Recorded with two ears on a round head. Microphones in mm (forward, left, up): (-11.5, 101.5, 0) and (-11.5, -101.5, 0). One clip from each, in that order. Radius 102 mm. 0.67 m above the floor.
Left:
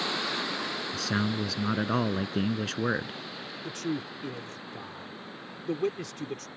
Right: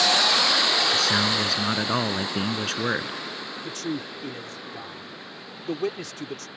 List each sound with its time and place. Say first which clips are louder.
0.9 s a man speaking: right 10 dB; 30° right (ahead or behind)
3.6 s a man speaking: even; 25° right (ahead or behind)